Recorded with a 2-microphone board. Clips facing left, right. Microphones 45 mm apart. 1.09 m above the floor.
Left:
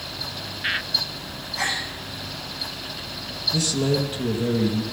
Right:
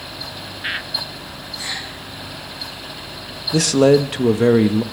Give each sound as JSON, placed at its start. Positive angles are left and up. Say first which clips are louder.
{"t": 1.6, "sound": "a gasp", "louder": "left 4 dB", "side_deg": 70, "distance_m": 10.0}
{"t": 3.5, "sound": "a man speaking", "louder": "right 11 dB", "side_deg": -75, "distance_m": 1.2}